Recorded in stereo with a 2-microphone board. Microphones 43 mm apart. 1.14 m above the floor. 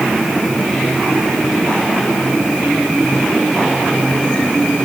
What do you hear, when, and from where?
Only background noise.